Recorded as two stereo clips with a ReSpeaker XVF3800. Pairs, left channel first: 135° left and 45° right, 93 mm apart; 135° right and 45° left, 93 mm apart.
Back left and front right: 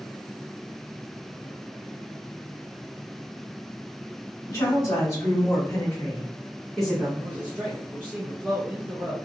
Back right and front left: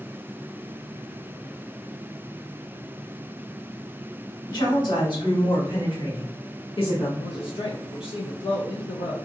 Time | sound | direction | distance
4.5 | a woman speaking | 175° right | 1.8 m
7.2 | a man speaking | 115° right | 0.7 m